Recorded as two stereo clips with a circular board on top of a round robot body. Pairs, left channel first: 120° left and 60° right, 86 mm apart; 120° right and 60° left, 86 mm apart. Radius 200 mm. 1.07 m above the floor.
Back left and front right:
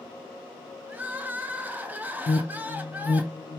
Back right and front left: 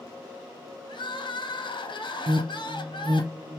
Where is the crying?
130° right, 0.9 m.